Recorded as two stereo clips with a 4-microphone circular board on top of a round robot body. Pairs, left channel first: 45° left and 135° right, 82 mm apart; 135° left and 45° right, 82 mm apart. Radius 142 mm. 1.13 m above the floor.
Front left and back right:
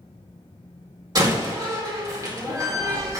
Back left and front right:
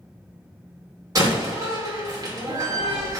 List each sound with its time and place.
1.1 s a door slam: 95° right, 2.5 m